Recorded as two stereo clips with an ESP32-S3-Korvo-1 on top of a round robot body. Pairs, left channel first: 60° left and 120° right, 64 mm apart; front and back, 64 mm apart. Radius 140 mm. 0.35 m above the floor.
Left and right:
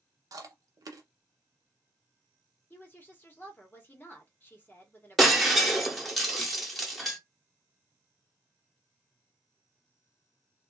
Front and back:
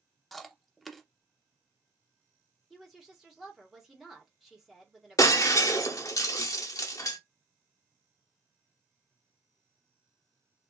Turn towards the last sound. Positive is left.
turn(degrees=-30)